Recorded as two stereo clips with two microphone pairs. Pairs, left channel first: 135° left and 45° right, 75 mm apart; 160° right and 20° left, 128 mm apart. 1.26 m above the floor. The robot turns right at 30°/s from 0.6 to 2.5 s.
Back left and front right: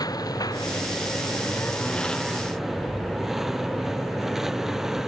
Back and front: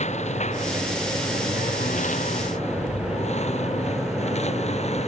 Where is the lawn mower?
170° left; by 5.1 s 130° right.